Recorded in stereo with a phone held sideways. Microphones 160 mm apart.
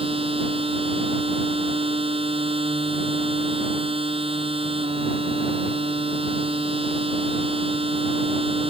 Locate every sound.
0.0 s a machine running: 35° right (ahead or behind)